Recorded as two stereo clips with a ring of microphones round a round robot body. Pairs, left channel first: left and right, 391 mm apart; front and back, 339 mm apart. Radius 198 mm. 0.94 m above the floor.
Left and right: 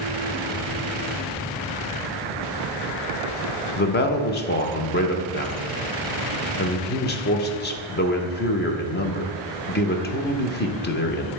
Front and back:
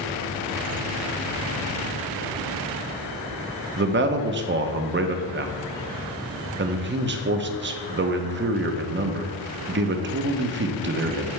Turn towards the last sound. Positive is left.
turn(degrees=140)